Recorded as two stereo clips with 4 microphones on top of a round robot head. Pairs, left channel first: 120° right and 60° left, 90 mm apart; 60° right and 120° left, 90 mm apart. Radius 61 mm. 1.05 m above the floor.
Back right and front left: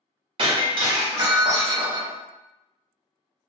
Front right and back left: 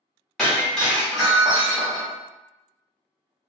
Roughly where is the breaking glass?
Ahead left.